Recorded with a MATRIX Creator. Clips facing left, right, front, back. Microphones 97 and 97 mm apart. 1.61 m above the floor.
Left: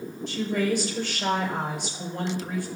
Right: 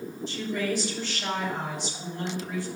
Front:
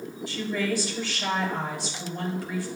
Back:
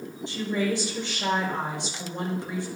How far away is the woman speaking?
About 5.5 m.